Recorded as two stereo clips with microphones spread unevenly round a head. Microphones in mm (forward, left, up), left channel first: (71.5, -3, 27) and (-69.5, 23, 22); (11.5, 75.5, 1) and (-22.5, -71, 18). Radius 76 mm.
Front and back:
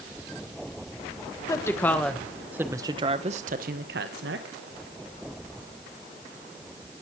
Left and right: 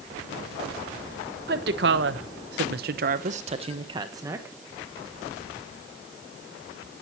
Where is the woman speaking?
80° right, 1.5 m; by 4.5 s straight behind, 1.5 m.